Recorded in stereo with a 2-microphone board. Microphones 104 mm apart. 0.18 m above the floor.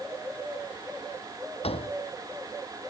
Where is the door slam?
80° left.